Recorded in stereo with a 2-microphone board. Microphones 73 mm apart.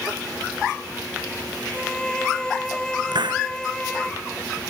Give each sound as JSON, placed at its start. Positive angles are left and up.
{"t": 1.7, "sound": "a violin", "side_deg": 10}
{"t": 3.1, "sound": "a hiss", "side_deg": -85}